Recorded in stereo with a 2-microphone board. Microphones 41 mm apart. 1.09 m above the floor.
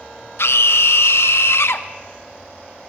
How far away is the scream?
About 0.8 m.